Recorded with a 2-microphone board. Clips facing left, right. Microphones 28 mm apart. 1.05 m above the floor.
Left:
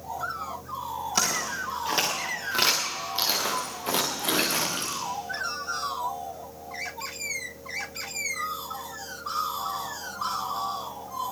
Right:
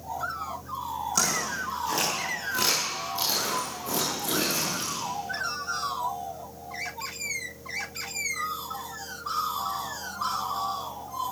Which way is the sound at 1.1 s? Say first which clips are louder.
Left 1 dB; 30° left (ahead or behind).